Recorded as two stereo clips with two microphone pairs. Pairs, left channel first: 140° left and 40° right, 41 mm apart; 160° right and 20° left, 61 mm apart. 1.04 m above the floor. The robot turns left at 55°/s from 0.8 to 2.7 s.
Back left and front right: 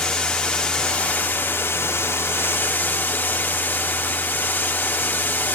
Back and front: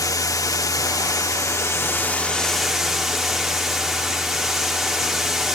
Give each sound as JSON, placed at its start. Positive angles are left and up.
{"t": 0.0, "sound": "running water", "azimuth_deg": -150, "distance_m": 1.3}